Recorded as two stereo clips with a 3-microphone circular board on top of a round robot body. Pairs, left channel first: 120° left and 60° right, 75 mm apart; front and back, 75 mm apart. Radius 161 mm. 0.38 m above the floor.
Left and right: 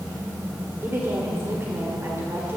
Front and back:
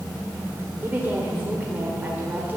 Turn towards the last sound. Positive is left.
turn(degrees=-115)